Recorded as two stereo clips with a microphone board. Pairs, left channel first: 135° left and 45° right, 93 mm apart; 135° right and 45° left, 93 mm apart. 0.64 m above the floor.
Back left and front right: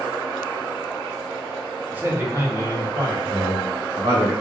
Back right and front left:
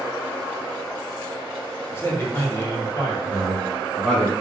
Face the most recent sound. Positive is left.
turn(degrees=-45)